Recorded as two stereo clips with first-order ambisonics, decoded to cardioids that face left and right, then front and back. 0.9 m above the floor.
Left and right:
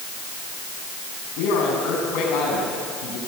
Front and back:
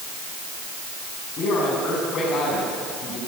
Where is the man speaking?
60° left, 8 m.